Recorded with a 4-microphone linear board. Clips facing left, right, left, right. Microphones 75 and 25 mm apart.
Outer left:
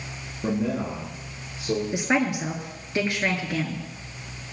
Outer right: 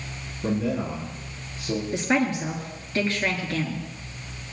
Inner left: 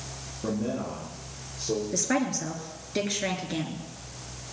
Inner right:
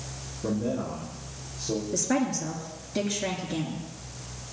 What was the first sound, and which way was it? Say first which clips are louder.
A man speaking: even, inner right 1 dB; 20° left (ahead or behind).